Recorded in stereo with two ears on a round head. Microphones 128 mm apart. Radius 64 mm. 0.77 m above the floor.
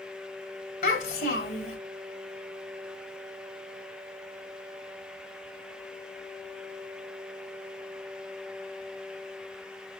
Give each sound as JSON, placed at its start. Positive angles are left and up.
{"t": 0.8, "sound": "a child speaking", "side_deg": 75, "distance_m": 3.0}